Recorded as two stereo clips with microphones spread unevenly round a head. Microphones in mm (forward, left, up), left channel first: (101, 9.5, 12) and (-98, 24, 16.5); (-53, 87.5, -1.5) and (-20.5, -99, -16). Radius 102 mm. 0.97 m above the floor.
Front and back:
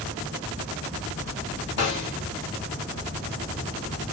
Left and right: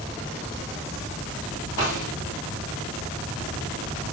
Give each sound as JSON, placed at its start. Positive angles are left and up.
{"t": 1.8, "sound": "a snare drum", "azimuth_deg": 20, "distance_m": 1.5}